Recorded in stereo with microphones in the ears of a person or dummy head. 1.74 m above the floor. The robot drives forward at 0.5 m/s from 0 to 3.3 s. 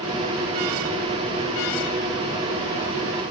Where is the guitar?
I don't hear a guitar.